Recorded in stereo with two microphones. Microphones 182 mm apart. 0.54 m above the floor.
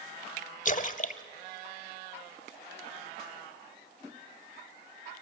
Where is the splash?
45° left (ahead or behind), 0.7 m.